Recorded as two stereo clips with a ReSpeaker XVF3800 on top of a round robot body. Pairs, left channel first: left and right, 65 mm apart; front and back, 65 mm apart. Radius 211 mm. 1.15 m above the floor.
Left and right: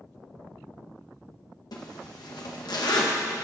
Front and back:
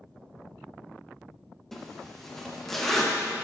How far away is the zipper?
About 1.3 m.